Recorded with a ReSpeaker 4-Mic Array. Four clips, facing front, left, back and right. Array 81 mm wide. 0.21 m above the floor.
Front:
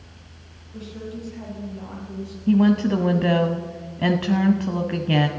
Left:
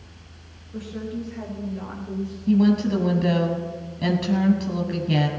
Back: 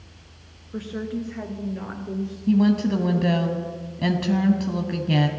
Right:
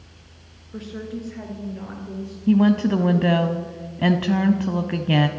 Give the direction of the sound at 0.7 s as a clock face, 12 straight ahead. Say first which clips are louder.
Left 1 dB, back 5 dB; 5 o'clock.